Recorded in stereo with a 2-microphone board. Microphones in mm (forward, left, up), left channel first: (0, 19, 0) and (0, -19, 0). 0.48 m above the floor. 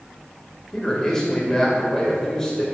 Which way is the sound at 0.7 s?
15° left (ahead or behind).